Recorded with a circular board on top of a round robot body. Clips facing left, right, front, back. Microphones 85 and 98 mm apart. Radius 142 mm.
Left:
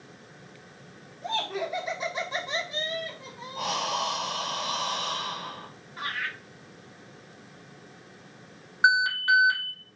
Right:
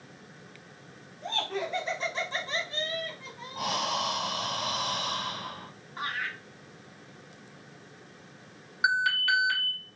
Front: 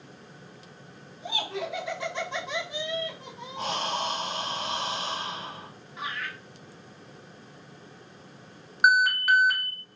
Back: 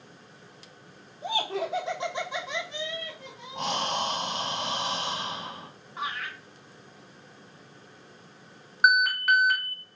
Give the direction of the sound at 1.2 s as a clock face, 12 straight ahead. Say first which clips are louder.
Left 2 dB, back 3 dB; 6 o'clock.